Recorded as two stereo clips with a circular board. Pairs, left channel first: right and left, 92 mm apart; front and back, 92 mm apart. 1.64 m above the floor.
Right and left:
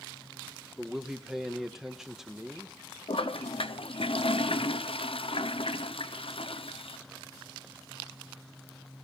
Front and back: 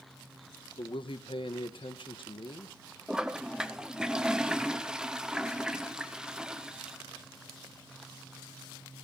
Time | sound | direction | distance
0.8 | a man speaking | 5° left | 1.2 m
3.1 | a toilet flushing | 100° right | 0.9 m